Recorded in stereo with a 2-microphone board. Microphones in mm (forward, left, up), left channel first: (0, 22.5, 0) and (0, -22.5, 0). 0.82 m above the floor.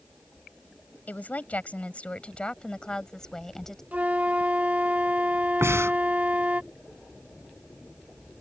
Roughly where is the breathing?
Right.